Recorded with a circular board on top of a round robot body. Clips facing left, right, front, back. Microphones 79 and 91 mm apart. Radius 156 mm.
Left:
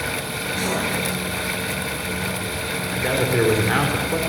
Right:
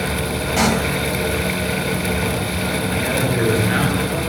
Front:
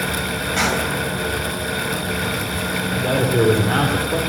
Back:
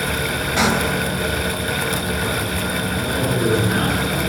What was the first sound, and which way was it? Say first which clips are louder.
A pop: right 7 dB, back 3 dB; 100° right.